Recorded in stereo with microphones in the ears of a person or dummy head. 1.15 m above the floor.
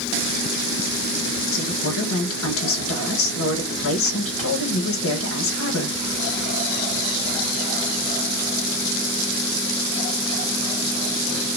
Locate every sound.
1.5 s a woman speaking: 70° left (ahead or behind), 1.6 m